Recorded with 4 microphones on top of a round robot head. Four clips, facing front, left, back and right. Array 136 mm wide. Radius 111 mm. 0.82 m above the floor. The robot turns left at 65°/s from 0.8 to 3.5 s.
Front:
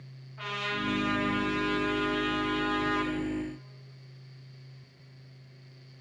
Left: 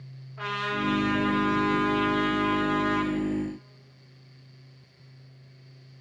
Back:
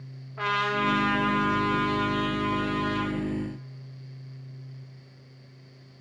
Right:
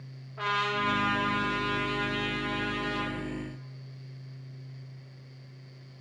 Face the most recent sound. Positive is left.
turn(degrees=15)